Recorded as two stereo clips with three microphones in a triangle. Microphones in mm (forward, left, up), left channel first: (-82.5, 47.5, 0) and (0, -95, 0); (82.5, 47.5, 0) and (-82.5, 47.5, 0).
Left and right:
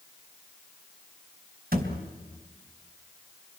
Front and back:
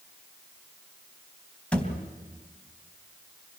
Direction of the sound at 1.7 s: 85° right.